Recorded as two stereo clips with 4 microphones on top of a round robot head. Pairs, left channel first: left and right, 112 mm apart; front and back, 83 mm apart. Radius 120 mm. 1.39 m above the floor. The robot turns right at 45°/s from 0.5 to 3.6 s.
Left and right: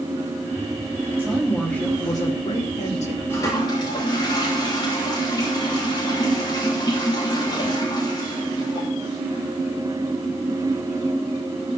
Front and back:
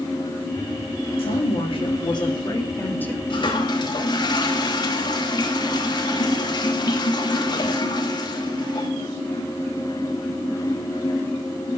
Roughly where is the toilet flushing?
Ahead.